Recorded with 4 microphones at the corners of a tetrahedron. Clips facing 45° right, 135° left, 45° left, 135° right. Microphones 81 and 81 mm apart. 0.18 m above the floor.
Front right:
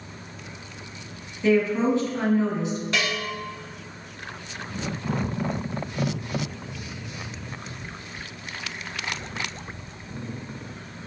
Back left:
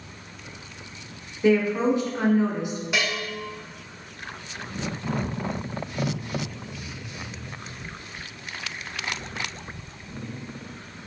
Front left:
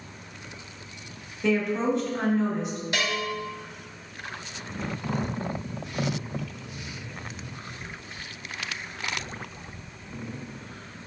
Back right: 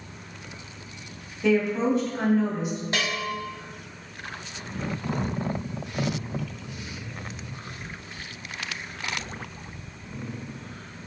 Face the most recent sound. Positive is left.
turn(degrees=-150)